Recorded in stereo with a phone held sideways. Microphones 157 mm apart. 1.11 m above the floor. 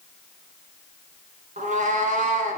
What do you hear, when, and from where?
1.6 s a cat meowing: 55° right (ahead or behind), 1.6 m